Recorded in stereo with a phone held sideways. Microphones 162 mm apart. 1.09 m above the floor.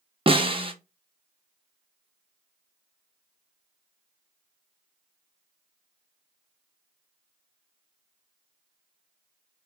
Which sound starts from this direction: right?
A snare drum, at 0.3 s.